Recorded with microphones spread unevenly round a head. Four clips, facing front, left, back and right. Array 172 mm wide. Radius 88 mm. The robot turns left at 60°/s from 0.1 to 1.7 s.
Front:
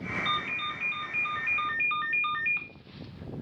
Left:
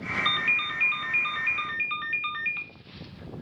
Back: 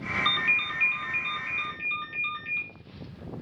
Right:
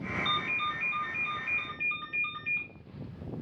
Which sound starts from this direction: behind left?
A ringtone, at 0.2 s.